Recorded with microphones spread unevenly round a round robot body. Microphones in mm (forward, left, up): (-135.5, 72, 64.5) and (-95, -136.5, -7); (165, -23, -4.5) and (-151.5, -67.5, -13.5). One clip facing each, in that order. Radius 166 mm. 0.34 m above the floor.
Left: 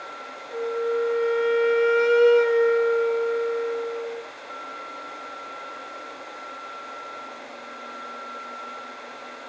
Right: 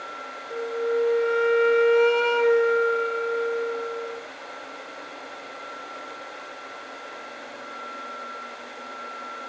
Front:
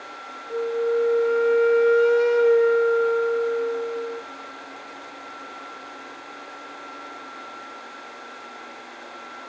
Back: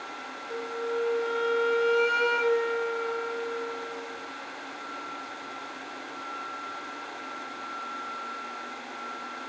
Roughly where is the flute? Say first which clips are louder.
Even, front 9 dB; behind.